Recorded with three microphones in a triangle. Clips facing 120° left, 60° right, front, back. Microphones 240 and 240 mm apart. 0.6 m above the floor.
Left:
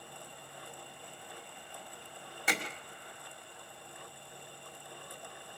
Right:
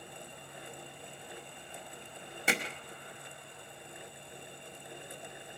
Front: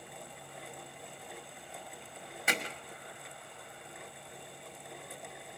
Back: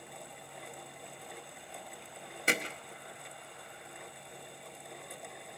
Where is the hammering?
120° right, 2.0 m.